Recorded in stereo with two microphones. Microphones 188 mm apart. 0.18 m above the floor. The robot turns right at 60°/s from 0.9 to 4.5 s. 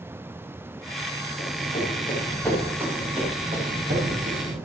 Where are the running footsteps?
65° left (ahead or behind), 7 m; by 4.5 s 80° right, 7 m.